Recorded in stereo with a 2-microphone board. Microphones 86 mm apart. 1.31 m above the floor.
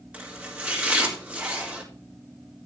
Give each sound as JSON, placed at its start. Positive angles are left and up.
{"t": 0.1, "sound": "chopping", "side_deg": -15, "distance_m": 4.0}